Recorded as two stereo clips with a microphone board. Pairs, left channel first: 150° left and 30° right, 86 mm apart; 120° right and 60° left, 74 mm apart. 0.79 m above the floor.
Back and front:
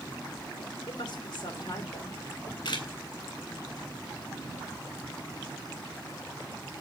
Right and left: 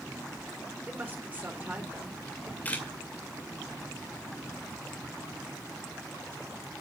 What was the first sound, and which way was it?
A woman speaking, 130° left.